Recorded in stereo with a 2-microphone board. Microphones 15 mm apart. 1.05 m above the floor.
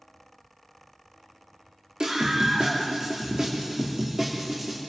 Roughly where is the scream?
Right.